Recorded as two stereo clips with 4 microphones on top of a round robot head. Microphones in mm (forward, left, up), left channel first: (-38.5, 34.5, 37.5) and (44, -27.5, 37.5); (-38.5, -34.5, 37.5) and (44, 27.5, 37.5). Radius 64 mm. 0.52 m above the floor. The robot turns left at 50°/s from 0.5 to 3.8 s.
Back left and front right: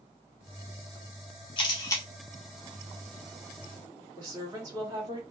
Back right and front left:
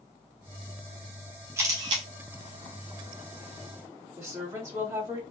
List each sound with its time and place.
1.6 s a camera shutter: 100° left, 0.6 m; by 2.0 s 80° left, 0.6 m
4.2 s a woman speaking: 10° right, 1.6 m